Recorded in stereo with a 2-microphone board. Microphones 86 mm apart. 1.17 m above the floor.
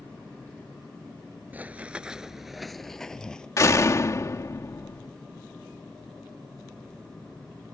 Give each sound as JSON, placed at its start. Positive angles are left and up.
{"t": 1.5, "sound": "running footsteps", "side_deg": -20}
{"t": 3.6, "sound": "a door slam", "side_deg": 40}